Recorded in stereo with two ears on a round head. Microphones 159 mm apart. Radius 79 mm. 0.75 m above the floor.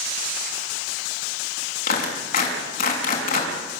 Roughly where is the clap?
Left.